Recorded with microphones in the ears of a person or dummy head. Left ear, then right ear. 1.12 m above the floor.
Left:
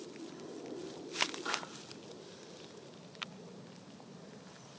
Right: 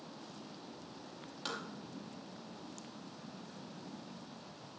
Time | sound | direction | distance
1.4 | tapping | 25° right (ahead or behind) | 5 m